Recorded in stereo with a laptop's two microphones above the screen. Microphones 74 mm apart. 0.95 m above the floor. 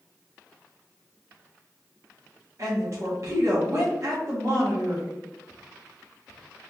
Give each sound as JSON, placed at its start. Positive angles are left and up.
{"t": 2.6, "sound": "a woman speaking", "side_deg": -45, "distance_m": 1.2}